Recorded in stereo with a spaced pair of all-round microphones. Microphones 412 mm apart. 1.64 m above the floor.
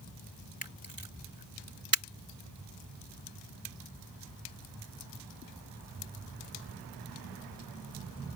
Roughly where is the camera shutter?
Right.